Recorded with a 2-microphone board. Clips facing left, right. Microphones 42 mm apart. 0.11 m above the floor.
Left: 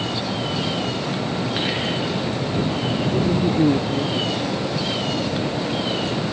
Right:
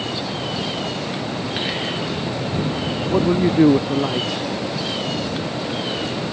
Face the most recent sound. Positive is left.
turn(degrees=-65)  # may be behind; listen again after turning